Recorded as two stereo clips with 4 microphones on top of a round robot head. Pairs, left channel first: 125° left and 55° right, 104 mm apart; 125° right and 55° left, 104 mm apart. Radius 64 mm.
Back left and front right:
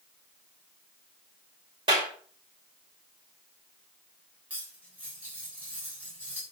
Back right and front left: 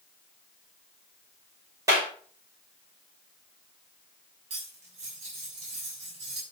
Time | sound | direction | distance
1.9 | a clap | 10° right | 6 m
4.5 | cutlery clinking | 20° left | 6.5 m